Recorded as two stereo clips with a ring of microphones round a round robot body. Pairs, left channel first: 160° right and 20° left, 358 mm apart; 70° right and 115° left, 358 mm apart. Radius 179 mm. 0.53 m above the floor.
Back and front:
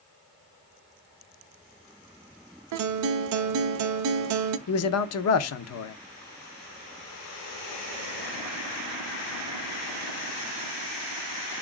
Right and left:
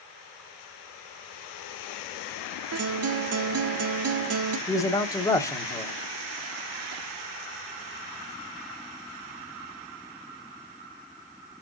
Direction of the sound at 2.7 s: 65° left.